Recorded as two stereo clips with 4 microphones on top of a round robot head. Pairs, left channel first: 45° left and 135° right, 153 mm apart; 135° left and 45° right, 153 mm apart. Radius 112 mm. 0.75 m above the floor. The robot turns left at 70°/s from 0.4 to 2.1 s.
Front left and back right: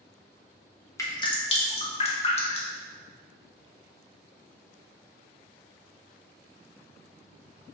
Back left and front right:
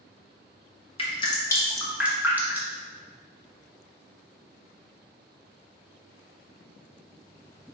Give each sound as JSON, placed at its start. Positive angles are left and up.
{"t": 1.0, "sound": "dripping", "azimuth_deg": 105, "distance_m": 1.2}